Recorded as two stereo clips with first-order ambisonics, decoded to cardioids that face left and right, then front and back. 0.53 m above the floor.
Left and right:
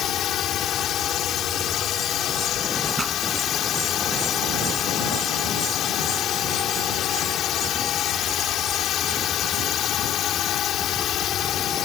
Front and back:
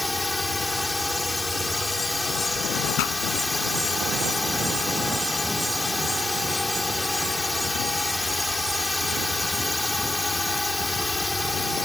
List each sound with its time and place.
0.0 s a drone: 80° left
3.0 s a pop: 15° right